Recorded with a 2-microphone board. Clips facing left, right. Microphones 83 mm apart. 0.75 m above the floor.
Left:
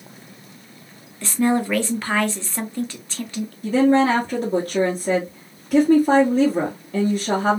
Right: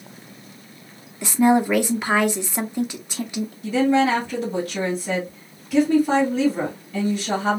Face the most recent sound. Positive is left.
turn(degrees=35)  # may be behind; listen again after turning